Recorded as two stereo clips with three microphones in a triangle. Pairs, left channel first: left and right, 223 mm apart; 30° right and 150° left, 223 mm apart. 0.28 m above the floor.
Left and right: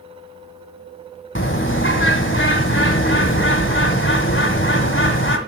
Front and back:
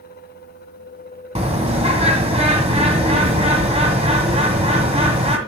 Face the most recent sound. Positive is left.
turn(degrees=95)